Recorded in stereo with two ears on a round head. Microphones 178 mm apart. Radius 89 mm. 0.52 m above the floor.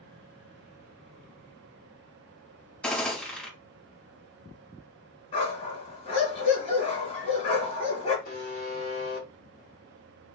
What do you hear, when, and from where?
2.8 s a gunshot: 10° left (ahead or behind), 2.5 m
5.3 s a dog barking: 30° left (ahead or behind), 2 m
8.2 s a buzzer: 45° left (ahead or behind), 1.7 m